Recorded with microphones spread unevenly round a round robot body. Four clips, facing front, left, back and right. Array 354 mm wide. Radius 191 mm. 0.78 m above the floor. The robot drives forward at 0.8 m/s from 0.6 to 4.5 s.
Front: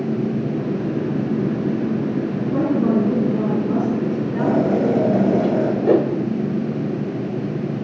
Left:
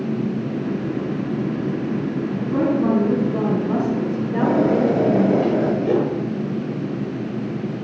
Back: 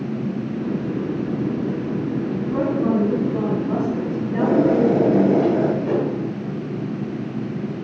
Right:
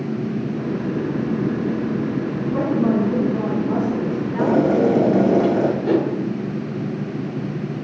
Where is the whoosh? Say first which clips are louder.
Even, front 5 dB; 10° left, 1.8 m.